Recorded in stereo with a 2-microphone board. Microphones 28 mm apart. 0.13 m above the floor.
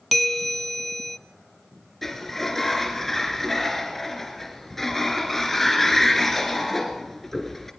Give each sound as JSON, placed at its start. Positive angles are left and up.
{"t": 0.1, "sound": "a bell", "side_deg": 5, "distance_m": 0.6}
{"t": 2.0, "sound": "a sliding door", "side_deg": 10, "distance_m": 2.5}